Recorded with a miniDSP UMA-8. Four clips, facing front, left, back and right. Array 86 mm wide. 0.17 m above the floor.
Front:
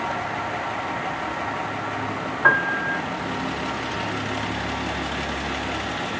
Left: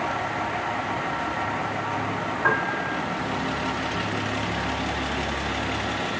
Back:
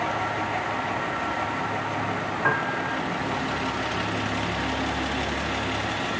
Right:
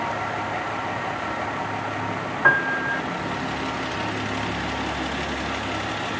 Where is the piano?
35° right, 1.4 m.